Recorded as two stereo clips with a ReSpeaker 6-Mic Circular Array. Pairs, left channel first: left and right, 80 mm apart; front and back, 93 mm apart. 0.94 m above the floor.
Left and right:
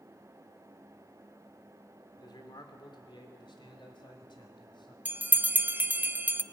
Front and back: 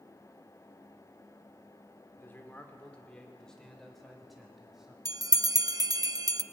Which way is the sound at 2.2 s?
65° left.